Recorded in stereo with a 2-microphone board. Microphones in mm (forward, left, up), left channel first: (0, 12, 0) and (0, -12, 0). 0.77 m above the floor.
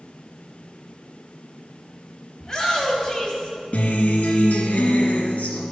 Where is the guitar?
70° left (ahead or behind), 1.8 m.